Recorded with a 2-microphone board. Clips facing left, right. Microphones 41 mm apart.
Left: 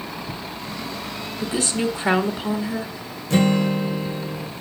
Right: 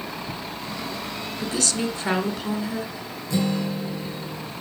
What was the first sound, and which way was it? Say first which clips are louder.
A woman speaking: left 3 dB; 20° left (ahead or behind).